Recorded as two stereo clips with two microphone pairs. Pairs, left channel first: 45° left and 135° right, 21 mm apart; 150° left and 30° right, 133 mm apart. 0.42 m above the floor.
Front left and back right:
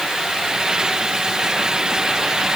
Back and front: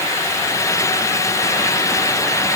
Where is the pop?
I don't hear a pop.